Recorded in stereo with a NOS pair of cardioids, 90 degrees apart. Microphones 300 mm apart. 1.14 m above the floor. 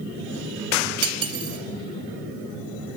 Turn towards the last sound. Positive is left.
turn(degrees=-50)